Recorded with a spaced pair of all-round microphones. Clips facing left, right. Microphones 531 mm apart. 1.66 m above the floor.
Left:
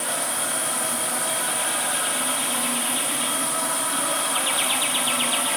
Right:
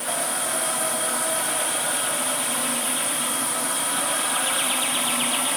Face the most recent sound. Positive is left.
No sound to turn to.